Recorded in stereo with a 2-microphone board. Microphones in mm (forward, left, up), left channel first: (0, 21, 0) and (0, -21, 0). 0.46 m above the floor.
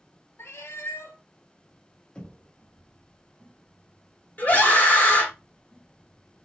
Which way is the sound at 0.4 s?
75° left (ahead or behind).